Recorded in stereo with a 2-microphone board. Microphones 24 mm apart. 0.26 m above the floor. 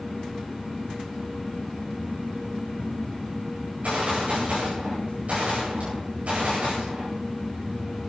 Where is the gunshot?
75° right (ahead or behind), 9 m.